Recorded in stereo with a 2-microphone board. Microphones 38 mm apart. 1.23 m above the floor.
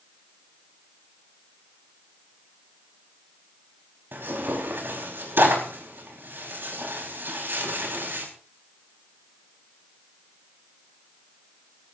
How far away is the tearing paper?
About 4.5 m.